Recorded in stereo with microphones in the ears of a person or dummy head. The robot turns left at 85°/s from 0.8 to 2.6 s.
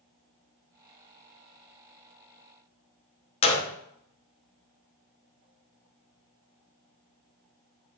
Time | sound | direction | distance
3.4 | a gunshot | 35° left (ahead or behind) | 0.8 m